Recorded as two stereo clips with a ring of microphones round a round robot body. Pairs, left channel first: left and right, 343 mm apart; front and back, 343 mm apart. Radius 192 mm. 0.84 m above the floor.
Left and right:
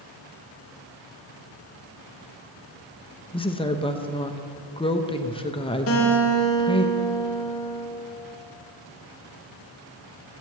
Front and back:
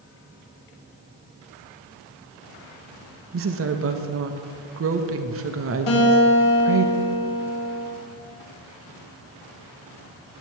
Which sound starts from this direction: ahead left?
A guitar, at 5.9 s.